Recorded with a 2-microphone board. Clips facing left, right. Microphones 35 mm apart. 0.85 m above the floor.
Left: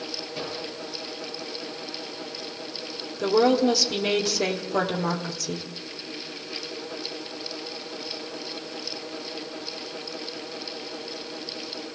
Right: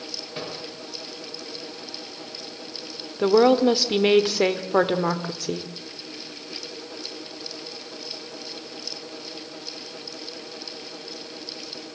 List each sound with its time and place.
0.3 s a microwave: 40° right (ahead or behind), 10 m
3.2 s a woman speaking: 30° right (ahead or behind), 2 m